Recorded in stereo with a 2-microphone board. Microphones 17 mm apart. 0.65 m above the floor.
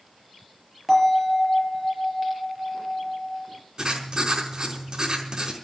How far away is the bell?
About 5.5 m.